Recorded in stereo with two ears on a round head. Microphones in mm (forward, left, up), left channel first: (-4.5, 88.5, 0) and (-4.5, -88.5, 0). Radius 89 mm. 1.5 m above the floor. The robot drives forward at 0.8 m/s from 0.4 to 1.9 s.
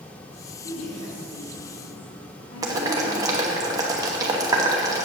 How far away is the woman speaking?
About 3 m.